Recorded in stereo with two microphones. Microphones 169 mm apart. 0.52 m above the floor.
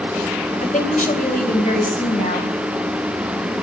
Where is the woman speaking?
50° left (ahead or behind), 2.5 m; by 2.5 s 55° left (ahead or behind), 4 m.